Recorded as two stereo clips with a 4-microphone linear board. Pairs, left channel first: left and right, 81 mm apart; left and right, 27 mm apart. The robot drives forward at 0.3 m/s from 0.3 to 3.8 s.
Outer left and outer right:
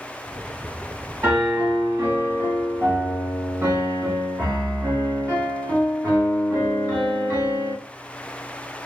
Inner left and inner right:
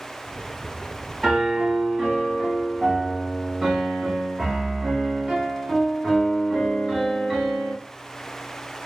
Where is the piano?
35° right (ahead or behind), 1.5 m; by 7.7 s 30° right (ahead or behind), 1.8 m.